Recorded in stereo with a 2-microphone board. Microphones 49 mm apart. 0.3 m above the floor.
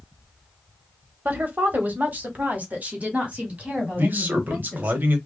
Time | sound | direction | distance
1.2 | a woman speaking | 35° right (ahead or behind) | 1.1 m
4.0 | a man speaking | 40° right (ahead or behind) | 1.1 m